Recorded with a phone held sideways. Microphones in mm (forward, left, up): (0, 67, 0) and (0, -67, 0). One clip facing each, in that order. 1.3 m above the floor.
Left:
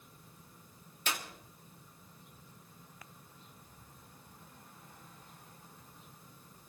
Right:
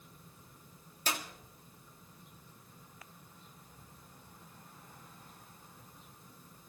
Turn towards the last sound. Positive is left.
turn(degrees=-40)  # may be behind; listen again after turning